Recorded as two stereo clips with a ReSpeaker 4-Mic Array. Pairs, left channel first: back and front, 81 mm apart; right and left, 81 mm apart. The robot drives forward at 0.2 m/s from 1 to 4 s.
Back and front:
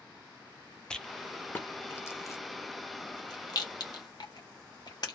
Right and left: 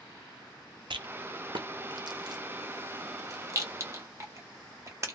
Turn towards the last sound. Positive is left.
turn(degrees=145)